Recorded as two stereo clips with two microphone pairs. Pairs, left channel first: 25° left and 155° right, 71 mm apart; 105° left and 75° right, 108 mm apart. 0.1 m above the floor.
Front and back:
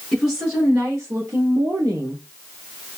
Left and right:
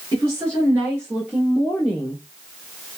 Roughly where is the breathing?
I don't hear breathing.